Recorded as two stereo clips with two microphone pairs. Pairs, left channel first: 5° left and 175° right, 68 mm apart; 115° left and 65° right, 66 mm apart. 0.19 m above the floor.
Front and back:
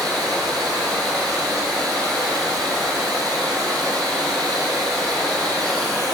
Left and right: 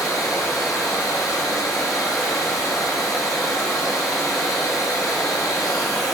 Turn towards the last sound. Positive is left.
turn(degrees=85)